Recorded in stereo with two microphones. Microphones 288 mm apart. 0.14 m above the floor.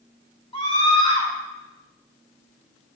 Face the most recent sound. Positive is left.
turn(degrees=20)  # may be behind; listen again after turning